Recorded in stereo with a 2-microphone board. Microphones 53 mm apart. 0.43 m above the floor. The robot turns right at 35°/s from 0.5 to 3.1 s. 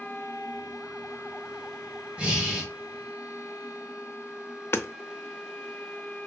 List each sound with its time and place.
2.2 s breathing: 20° right (ahead or behind), 1.4 m; by 2.7 s 10° right (ahead or behind), 1.4 m
4.7 s hammering: 55° left (ahead or behind), 0.5 m